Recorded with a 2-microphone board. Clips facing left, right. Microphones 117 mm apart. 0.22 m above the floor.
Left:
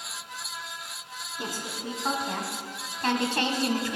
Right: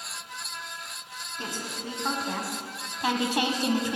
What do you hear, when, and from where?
1.4 s a woman speaking: 10° left (ahead or behind), 1.9 m; by 4.0 s 25° right (ahead or behind), 1.2 m